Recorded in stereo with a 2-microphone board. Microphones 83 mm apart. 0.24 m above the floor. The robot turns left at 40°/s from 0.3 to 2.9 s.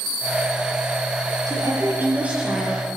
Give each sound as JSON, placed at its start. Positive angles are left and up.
{"t": 1.5, "sound": "a woman speaking", "azimuth_deg": -135, "distance_m": 5.0}